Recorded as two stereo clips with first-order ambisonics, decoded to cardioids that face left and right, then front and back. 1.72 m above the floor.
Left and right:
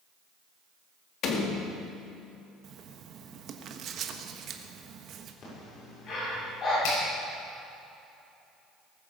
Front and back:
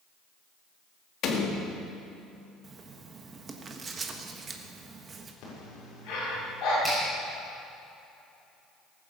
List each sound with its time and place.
1.2 s a door slam: 45° left, 1.9 m
2.6 s writing: 120° right, 1.2 m
5.4 s breathing: 40° left, 6.5 m
6.8 s a finger snap: 90° left, 6 m